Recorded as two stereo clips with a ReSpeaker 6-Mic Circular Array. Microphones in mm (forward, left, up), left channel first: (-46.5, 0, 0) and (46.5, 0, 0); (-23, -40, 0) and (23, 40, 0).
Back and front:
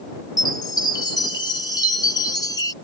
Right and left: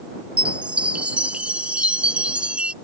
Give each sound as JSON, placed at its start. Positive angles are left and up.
{"t": 0.4, "sound": "a chime", "azimuth_deg": 135}